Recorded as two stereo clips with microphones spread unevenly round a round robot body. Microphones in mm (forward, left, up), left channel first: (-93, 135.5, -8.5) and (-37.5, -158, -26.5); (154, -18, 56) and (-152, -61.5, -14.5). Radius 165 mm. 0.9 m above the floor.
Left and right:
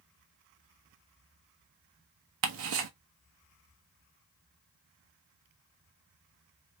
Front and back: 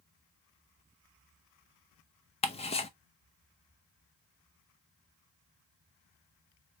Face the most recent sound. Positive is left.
turn(degrees=-70)